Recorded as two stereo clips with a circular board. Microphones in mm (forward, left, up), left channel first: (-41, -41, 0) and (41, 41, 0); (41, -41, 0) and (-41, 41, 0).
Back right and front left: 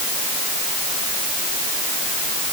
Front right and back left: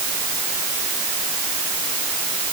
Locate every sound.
Only background noise.